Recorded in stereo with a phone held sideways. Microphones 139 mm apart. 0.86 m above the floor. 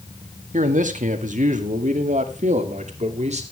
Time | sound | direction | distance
0.5 | a man speaking | 65° right (ahead or behind) | 1.7 m